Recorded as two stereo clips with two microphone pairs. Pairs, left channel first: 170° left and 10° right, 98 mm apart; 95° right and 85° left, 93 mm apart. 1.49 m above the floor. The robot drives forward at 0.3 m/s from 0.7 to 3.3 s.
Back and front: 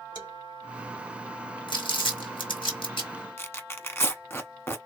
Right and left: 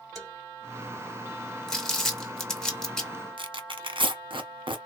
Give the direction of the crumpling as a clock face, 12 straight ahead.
6 o'clock.